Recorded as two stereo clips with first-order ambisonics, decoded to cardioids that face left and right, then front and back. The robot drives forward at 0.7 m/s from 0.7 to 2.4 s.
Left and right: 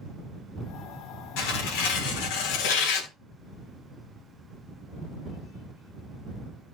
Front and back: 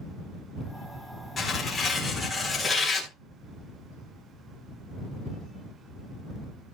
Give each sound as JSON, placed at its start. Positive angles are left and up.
{"t": 1.4, "sound": "tearing paper", "azimuth_deg": 70, "distance_m": 3.0}